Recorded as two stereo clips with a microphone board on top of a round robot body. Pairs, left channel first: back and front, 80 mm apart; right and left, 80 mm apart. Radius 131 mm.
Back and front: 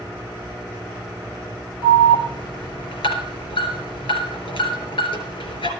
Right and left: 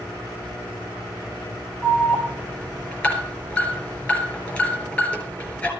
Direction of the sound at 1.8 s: 160° right.